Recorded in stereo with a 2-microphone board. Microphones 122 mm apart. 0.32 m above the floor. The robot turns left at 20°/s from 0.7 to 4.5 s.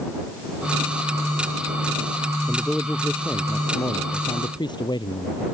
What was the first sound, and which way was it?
A man speaking, 175° right.